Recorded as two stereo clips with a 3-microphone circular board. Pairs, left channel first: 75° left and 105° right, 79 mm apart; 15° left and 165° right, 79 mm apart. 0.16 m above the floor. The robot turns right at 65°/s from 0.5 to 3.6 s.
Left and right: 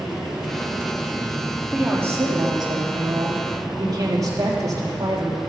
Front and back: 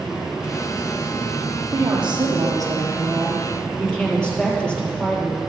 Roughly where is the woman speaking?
Behind.